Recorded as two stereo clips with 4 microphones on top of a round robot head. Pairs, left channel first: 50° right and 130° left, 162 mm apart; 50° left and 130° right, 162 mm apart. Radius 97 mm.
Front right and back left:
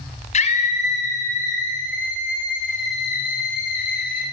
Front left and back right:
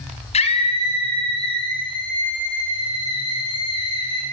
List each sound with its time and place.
0.3 s a scream: 5° right, 4.5 m; by 4.2 s 15° right, 10.5 m